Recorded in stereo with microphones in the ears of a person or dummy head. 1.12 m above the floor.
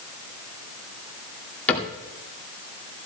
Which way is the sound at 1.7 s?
5° left (ahead or behind).